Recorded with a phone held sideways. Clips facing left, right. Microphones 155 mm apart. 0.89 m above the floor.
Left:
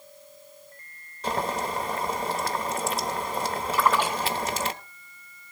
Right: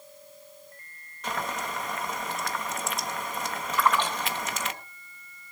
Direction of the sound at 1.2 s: 35° left (ahead or behind).